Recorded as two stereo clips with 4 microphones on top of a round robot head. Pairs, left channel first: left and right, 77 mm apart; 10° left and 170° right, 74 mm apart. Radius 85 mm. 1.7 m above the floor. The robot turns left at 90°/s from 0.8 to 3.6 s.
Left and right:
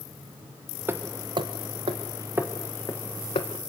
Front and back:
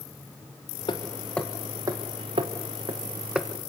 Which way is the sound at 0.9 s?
25° right.